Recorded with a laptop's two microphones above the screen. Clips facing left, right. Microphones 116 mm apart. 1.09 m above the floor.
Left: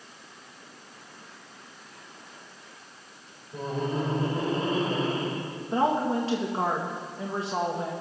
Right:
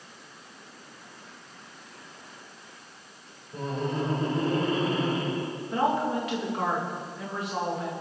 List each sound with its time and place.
3.5 s laughter: centre (ahead or behind), 3.5 m; by 5.4 s 35° left (ahead or behind), 4 m
5.7 s a woman speaking: 30° left (ahead or behind), 1.5 m